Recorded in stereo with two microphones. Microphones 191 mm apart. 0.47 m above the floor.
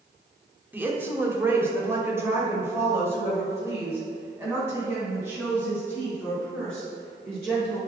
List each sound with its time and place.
0.7 s a woman speaking: 10° right (ahead or behind), 1.2 m; by 7.8 s 15° right (ahead or behind), 7 m